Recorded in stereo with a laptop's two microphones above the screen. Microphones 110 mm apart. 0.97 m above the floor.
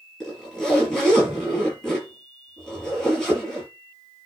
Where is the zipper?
5° left (ahead or behind), 7.5 m.